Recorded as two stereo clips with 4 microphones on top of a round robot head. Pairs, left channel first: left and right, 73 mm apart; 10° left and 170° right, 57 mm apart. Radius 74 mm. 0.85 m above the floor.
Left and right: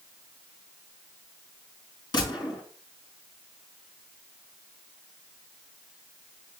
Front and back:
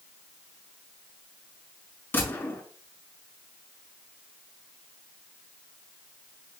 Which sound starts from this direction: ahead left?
A gunshot, at 2.1 s.